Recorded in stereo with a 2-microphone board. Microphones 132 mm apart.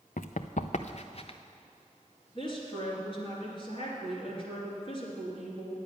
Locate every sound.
0.2 s running footsteps: 80° left, 0.6 m; by 1.4 s 45° left (ahead or behind), 0.9 m
2.4 s a woman speaking: 40° left (ahead or behind), 3 m